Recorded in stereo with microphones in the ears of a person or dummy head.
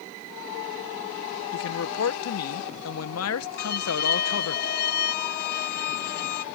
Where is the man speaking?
75° left (ahead or behind).